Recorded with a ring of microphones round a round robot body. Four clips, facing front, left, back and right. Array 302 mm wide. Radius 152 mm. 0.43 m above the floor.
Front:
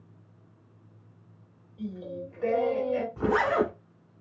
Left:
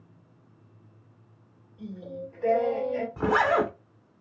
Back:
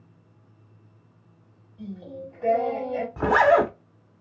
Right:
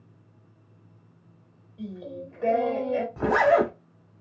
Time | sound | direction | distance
1.8 | singing | 55° right | 2 m
3.2 | a zipper | 165° right | 1.1 m